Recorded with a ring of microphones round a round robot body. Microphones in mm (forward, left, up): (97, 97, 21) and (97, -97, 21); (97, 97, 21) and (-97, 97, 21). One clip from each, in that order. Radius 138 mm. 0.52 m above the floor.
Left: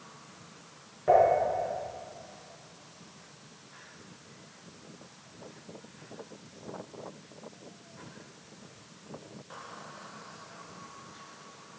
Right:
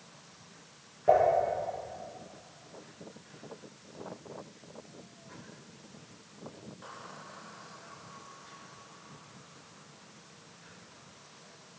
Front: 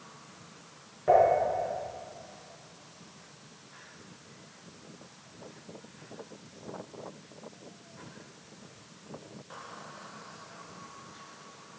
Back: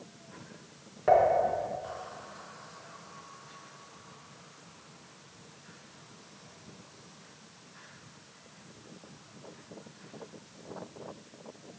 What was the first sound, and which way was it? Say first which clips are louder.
Dishes clattering: left 2 dB, front 1 dB; 165° left.